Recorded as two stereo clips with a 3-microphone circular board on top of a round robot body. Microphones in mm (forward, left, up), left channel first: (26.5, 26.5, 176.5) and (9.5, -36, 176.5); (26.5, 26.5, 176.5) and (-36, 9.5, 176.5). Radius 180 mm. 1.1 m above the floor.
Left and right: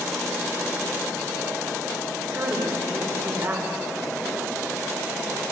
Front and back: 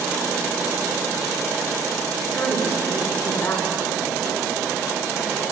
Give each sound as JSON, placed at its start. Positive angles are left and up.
{"t": 2.3, "sound": "a woman speaking", "azimuth_deg": -50, "distance_m": 5.5}